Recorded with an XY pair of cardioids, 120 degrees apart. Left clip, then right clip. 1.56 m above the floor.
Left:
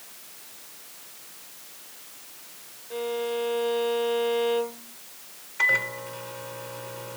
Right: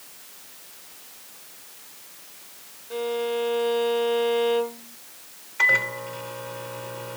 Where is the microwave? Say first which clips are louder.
Right 3 dB; 15° right.